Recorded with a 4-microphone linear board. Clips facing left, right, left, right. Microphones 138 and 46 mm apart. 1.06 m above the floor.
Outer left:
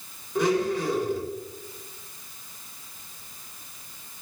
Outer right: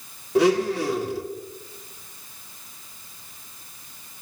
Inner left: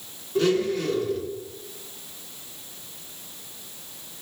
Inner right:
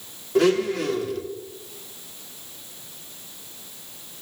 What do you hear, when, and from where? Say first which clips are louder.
0.3 s a blender: outer right 4 dB, inner right 3 dB; 70° right (ahead or behind), 1.7 m